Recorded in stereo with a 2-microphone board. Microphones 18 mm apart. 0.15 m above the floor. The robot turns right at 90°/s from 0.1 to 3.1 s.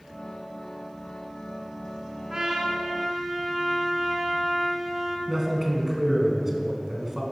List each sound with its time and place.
2.3 s a trumpet: 70° right, 1.2 m; by 5.2 s 5° left, 1.2 m
5.3 s a man speaking: 10° right (ahead or behind), 1.1 m